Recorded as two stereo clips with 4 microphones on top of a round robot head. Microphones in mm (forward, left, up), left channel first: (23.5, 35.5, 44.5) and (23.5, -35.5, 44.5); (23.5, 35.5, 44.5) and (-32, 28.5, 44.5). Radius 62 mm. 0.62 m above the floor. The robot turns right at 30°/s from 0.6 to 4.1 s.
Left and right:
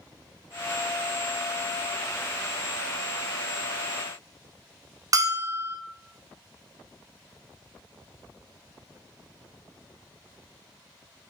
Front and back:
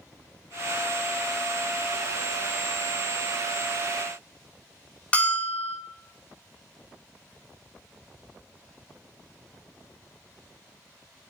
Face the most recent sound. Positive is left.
turn(degrees=-60)